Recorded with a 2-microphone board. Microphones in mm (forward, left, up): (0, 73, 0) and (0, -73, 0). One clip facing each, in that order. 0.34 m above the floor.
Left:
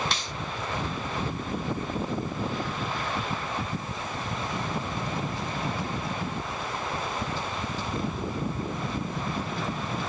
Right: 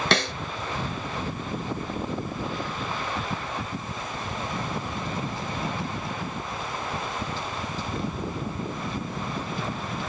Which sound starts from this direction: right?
A snare drum, at 0.1 s.